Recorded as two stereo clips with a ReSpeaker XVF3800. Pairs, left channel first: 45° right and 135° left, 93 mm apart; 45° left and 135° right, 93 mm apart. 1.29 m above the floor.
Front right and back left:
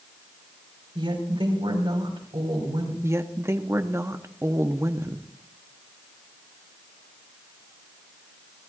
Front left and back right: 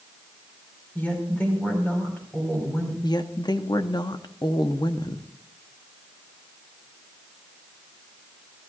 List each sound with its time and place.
0.9 s a woman speaking: 115° left, 5 m
3.0 s a woman speaking: 80° left, 0.9 m